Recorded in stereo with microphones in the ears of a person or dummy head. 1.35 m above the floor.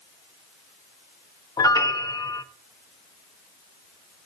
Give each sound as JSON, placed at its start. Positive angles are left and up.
{"t": 1.6, "sound": "a piano", "side_deg": 20, "distance_m": 0.6}